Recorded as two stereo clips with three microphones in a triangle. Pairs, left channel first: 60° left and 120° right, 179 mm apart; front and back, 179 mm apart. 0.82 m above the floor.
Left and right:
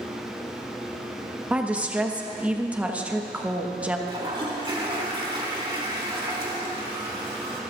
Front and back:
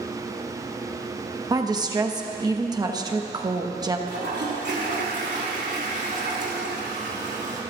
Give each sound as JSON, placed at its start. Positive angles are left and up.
{"t": 1.5, "sound": "a woman speaking", "azimuth_deg": 170, "distance_m": 1.0}
{"t": 4.1, "sound": "a toilet flushing", "azimuth_deg": 180, "distance_m": 2.5}